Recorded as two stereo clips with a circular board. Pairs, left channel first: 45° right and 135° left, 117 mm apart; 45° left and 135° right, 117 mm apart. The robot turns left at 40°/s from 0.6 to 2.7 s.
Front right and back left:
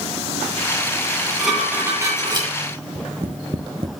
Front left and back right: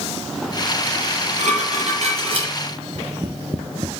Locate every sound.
1.0 s dishes clattering: 120° right, 9 m; by 2.5 s straight behind, 9 m
3.0 s tapping: 170° left, 1.8 m